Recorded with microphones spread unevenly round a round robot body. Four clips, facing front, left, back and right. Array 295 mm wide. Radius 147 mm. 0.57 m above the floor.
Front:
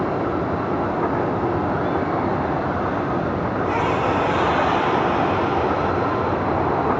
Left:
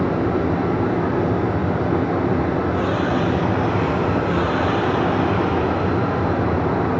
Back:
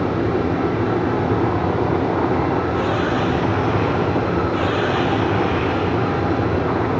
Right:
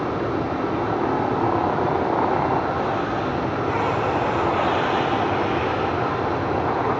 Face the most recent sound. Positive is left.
turn(degrees=145)